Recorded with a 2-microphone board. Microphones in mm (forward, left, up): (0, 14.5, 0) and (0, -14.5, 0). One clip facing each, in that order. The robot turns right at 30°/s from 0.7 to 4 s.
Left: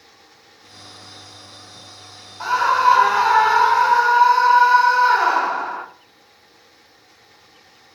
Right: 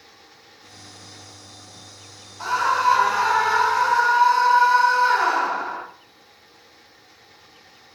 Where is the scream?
20° left (ahead or behind), 0.7 m; by 5.9 s 15° left (ahead or behind), 0.7 m.